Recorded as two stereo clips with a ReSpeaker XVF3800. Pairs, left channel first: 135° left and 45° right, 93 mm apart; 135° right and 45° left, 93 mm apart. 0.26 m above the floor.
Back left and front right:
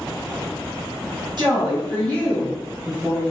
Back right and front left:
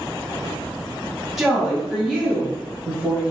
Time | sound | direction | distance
1.4 | a woman speaking | 40° right | 1.8 m